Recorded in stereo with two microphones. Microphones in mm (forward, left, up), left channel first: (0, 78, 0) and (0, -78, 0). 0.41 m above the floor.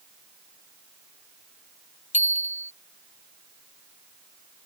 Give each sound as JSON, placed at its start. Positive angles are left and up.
{"t": 2.1, "sound": "a bicycle bell", "side_deg": 50}